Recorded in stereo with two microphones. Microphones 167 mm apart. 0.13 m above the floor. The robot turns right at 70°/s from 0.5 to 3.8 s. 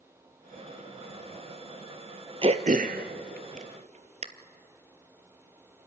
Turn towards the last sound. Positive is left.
turn(degrees=-40)  # may be behind; listen again after turning